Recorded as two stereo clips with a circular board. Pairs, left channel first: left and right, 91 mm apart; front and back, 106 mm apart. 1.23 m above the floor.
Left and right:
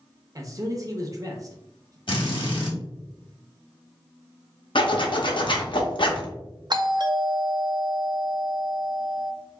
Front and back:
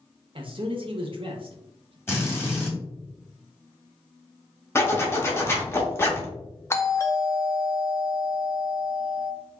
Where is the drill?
65° left, 1.5 m.